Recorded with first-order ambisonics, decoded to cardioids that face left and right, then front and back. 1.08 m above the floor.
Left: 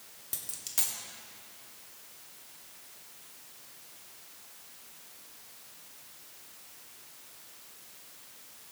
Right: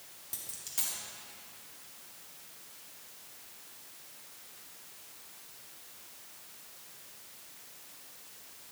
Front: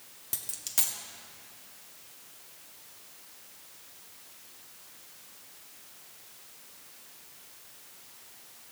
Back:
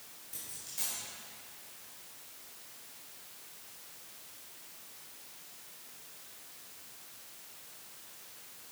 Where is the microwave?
No microwave in this recording.